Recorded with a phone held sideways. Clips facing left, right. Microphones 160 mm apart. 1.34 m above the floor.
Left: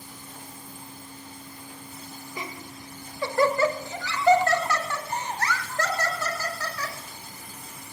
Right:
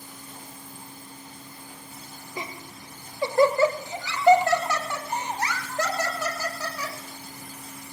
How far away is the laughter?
About 1.4 m.